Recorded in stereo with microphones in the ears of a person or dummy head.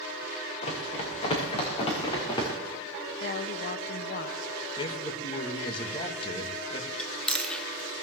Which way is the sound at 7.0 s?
5° left (ahead or behind).